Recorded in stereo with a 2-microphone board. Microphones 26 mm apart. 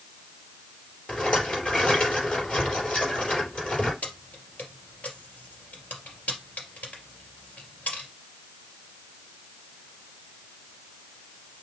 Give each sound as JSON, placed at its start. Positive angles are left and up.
{"t": 1.1, "sound": "a rattle", "side_deg": 45, "distance_m": 4.5}
{"t": 4.0, "sound": "keys jangling", "side_deg": 70, "distance_m": 2.5}